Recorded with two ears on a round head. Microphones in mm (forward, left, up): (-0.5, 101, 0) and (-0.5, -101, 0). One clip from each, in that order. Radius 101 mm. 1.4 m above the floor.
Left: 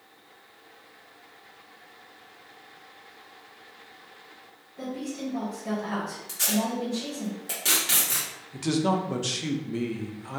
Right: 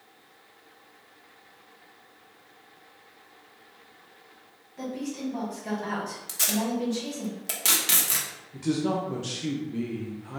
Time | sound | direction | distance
4.8 | a woman speaking | 45° right (ahead or behind) | 1.6 m
6.3 | tape being pulled | 20° right (ahead or behind) | 0.9 m
8.5 | a man speaking | 25° left (ahead or behind) | 0.5 m